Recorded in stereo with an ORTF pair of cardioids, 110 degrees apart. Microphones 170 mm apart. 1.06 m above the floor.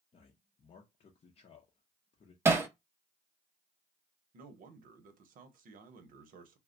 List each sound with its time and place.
0.1 s a man speaking: 35° left, 0.7 m
2.5 s hammering: 15° right, 0.6 m
4.3 s a man speaking: 55° right, 0.9 m